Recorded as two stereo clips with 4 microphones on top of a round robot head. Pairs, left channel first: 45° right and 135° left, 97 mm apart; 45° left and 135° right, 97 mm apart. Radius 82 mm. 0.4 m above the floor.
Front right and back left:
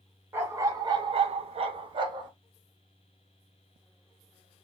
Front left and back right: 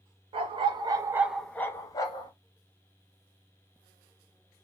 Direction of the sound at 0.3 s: 160° right.